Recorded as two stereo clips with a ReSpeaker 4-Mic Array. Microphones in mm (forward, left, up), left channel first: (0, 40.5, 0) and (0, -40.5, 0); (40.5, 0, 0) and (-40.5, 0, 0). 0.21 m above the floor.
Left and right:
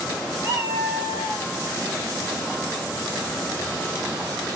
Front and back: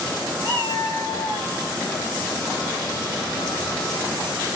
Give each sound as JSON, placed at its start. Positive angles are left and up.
{"t": 0.4, "sound": "a cat meowing", "azimuth_deg": -150, "distance_m": 2.0}